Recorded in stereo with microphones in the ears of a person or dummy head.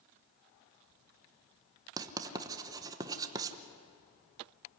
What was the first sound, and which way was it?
Writing, 20° right (ahead or behind).